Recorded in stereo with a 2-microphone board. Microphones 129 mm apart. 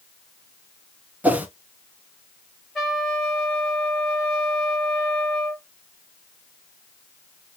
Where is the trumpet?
5° left (ahead or behind), 2.5 m.